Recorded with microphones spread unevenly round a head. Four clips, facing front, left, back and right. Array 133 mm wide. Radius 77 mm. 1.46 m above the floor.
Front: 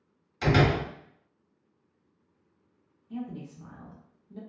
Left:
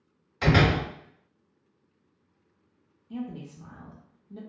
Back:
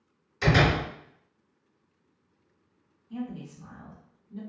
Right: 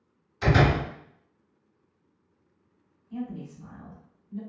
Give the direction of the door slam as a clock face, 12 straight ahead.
10 o'clock.